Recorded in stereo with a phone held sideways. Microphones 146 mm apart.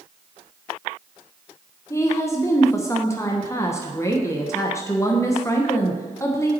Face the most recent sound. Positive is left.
turn(degrees=20)  # may be behind; listen again after turning